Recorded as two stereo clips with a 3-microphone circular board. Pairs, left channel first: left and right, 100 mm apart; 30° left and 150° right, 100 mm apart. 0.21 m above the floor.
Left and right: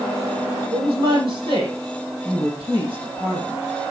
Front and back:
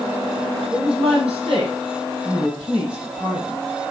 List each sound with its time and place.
0.7 s a woman speaking: 130° right, 6.5 m; by 3.7 s 125° right, 8 m